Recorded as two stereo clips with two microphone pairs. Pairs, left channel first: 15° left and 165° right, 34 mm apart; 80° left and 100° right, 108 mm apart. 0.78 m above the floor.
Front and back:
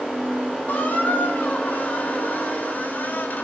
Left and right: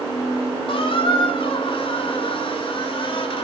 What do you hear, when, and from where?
0.7 s a squeak: 45° left, 1.2 m